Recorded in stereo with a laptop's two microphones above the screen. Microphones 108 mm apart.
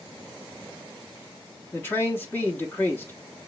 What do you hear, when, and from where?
1.7 s a man speaking: 20° left (ahead or behind), 0.8 m